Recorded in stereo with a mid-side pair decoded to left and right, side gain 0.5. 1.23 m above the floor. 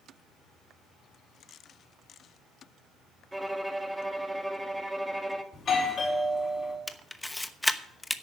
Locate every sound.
3.3 s a violin: 5° right, 1.4 m
5.5 s a doorbell: 40° left, 4 m
6.9 s a camera shutter: 10° left, 0.9 m